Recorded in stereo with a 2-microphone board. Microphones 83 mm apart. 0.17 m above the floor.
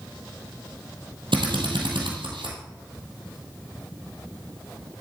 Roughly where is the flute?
I don't hear a flute.